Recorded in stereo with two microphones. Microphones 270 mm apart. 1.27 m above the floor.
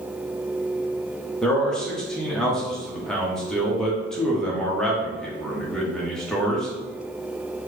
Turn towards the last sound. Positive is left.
turn(degrees=0)  # may be behind; listen again after turning